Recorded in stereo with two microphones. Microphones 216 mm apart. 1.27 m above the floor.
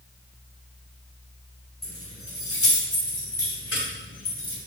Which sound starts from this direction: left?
Keys jangling, at 1.8 s.